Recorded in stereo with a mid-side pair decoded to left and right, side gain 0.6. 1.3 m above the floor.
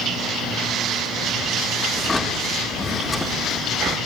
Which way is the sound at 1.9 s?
10° left.